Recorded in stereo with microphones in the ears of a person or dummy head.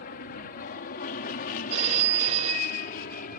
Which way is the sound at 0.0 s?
50° left (ahead or behind).